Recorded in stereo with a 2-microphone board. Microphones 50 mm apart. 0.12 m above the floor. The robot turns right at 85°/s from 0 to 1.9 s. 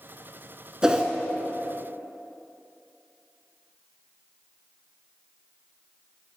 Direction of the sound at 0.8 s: 15° right (ahead or behind).